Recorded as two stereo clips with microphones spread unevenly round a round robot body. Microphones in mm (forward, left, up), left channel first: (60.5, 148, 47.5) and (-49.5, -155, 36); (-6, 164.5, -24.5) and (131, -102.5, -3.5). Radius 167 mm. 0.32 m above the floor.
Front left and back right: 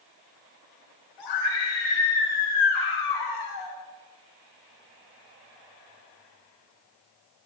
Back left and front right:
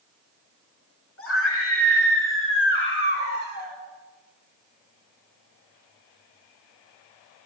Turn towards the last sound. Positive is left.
turn(degrees=65)